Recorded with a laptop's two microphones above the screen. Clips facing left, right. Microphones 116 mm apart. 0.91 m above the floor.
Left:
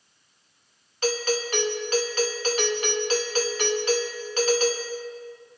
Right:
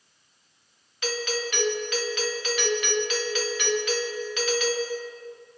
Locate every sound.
1.0 s a doorbell: 40° left (ahead or behind), 1.9 m